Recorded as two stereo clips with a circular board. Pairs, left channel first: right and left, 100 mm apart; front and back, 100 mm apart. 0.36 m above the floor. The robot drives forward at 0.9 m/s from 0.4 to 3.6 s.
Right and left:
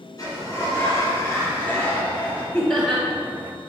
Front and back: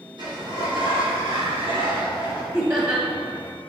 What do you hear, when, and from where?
0.2 s a sliding door: 140° right, 2 m; by 2.4 s 160° right, 3.5 m
2.5 s laughter: 155° right, 1.1 m; by 3.0 s 165° right, 1.3 m